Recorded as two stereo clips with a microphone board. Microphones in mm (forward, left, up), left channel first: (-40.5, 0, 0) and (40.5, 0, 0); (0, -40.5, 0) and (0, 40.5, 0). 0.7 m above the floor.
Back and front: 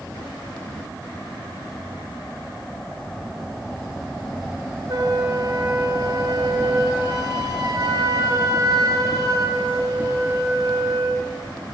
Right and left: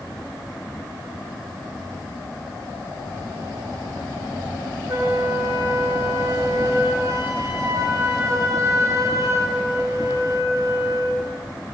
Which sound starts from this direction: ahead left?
A flute, at 4.9 s.